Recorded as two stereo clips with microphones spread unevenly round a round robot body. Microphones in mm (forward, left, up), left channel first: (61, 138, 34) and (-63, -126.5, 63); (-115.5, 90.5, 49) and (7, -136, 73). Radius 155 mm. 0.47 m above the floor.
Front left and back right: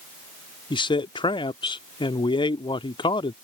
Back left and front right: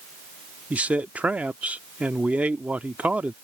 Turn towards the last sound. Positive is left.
turn(degrees=30)